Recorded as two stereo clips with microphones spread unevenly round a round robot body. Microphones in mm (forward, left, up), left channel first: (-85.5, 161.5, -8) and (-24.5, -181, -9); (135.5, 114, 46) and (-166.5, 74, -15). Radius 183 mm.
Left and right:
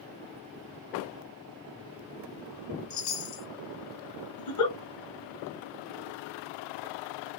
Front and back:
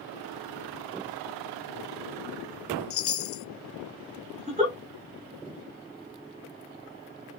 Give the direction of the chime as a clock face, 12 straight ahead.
10 o'clock.